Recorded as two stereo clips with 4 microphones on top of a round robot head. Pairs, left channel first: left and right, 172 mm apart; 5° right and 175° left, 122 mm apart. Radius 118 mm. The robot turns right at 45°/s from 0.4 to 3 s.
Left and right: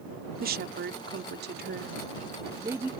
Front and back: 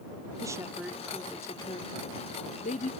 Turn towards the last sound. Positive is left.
turn(degrees=-5)